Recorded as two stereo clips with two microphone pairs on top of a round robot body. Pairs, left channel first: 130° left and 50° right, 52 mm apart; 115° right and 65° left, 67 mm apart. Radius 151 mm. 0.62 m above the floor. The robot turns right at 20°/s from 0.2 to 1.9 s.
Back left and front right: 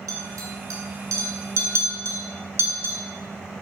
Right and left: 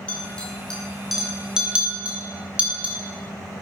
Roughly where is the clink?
Ahead right.